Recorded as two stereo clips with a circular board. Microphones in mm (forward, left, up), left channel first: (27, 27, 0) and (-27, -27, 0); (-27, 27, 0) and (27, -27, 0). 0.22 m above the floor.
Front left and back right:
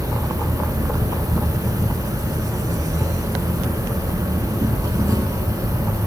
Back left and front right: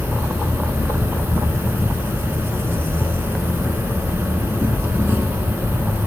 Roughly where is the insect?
Right.